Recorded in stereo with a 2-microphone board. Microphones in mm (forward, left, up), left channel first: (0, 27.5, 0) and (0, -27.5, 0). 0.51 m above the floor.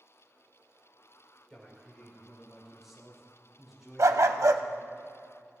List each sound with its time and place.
1.5 s a man speaking: 5° left (ahead or behind), 3.5 m; by 5.0 s 10° right (ahead or behind), 7.5 m
4.0 s a dog barking: 75° right (ahead or behind), 0.6 m